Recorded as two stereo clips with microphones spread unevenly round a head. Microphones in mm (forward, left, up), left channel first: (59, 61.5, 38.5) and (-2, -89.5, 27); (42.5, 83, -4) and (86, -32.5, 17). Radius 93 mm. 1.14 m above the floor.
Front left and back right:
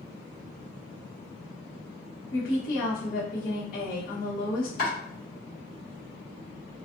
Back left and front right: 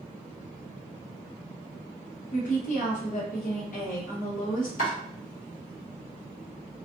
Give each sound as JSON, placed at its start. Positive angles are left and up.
{"t": 2.3, "sound": "a woman speaking", "azimuth_deg": 110, "distance_m": 1.0}
{"t": 4.8, "sound": "chopping", "azimuth_deg": 105, "distance_m": 1.4}